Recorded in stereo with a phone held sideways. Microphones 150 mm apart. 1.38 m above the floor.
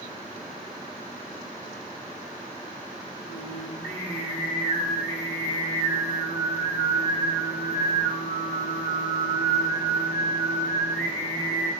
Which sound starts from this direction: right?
Singing, at 3.3 s.